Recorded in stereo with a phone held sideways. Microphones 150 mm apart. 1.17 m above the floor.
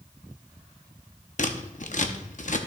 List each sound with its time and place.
1.4 s scissors: 55° left (ahead or behind), 0.8 m